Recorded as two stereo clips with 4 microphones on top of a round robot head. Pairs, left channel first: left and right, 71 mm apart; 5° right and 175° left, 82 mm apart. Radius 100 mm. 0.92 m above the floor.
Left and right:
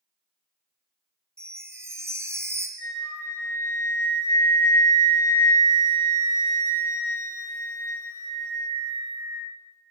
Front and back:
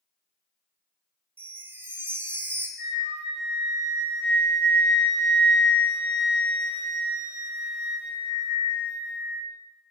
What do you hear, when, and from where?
1.4 s a chime: 130° right, 0.8 m
2.8 s a flute: 95° right, 3.5 m